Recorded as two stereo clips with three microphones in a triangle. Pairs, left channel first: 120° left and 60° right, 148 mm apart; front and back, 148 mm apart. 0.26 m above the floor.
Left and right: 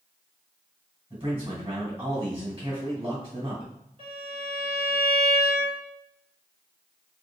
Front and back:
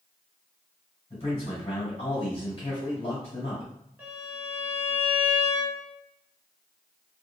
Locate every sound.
1.1 s a man speaking: 25° right, 2.0 m
4.0 s a violin: 100° right, 1.8 m